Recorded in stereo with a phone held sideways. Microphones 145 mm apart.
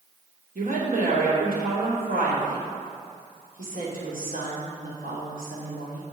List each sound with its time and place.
0.6 s a woman speaking: 75° right (ahead or behind), 3 m